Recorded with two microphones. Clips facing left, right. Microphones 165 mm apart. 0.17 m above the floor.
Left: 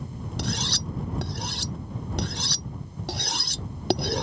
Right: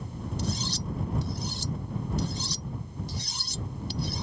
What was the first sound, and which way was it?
Cutlery clinking, 75° left (ahead or behind).